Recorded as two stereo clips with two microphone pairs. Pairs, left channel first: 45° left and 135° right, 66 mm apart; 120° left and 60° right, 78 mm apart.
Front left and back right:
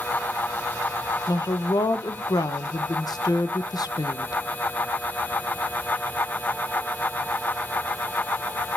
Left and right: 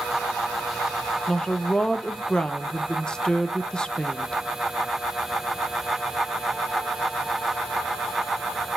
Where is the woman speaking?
45° left, 0.6 m.